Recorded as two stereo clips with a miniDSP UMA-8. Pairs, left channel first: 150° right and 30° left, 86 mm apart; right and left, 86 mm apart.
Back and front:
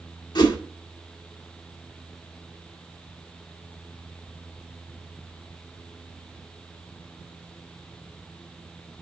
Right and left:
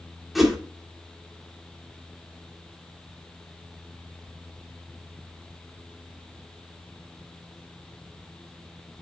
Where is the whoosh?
Straight behind, 1.8 m.